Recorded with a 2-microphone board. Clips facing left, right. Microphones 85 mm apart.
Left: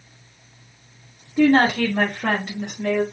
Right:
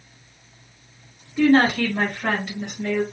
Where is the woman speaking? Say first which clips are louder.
Left 1 dB; 40° left (ahead or behind), 1.3 m; by 3.0 s 55° left (ahead or behind), 1.8 m.